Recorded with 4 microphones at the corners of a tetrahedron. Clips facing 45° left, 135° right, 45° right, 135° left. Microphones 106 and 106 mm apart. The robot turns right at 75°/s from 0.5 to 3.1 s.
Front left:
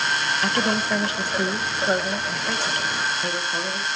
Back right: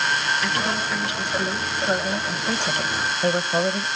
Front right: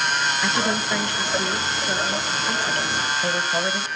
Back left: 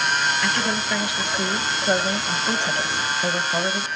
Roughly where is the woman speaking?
Ahead.